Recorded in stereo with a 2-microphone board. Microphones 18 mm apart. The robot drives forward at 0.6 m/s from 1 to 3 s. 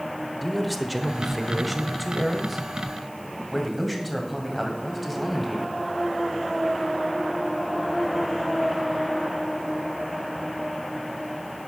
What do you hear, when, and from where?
0.4 s a man speaking: 5° right (ahead or behind), 1.1 m